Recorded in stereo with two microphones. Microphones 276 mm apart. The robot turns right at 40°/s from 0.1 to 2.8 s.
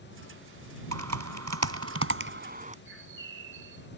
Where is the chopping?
I don't hear chopping.